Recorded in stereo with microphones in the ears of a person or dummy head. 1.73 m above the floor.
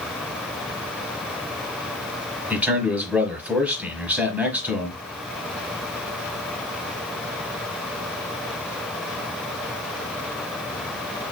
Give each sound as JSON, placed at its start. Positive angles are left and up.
{"t": 2.5, "sound": "a man speaking", "side_deg": -5, "distance_m": 1.2}